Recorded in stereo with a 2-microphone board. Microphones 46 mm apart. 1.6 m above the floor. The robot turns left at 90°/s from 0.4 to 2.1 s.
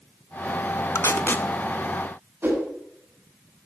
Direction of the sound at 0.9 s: 70° left (ahead or behind).